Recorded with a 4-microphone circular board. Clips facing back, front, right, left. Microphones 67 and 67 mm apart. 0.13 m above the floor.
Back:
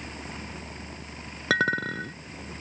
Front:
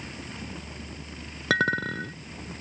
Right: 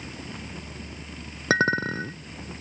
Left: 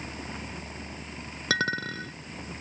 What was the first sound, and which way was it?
A clink, 90° right.